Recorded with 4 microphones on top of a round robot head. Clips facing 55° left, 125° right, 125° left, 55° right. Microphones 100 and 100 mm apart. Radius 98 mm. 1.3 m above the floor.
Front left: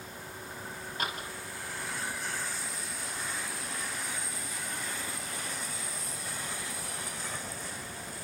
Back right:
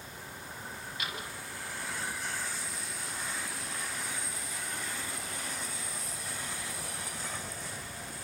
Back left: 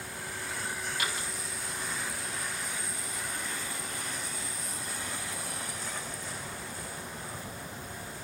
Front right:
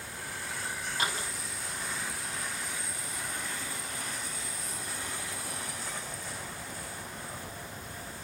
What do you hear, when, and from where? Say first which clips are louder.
1.0 s a door slam: front left 5 dB, front right 5 dB; 5° left, 6 m